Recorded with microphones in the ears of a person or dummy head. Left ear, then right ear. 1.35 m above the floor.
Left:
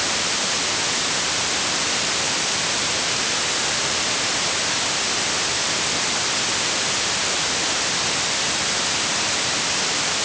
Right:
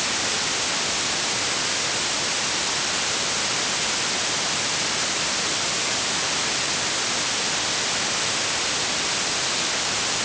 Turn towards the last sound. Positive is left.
No sound to turn to.